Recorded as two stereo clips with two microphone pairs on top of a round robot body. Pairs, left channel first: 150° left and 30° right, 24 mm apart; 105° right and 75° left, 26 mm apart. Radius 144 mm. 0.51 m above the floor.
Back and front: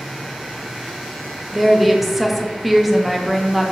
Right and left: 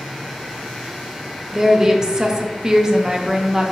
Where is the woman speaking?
60° left, 0.6 m.